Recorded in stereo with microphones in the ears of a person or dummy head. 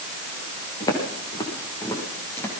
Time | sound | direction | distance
0.8 | footsteps | 25° left (ahead or behind) | 8 m